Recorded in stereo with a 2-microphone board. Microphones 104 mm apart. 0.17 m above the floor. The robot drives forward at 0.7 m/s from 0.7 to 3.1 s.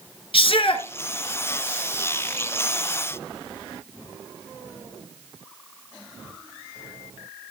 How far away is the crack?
I don't hear a crack.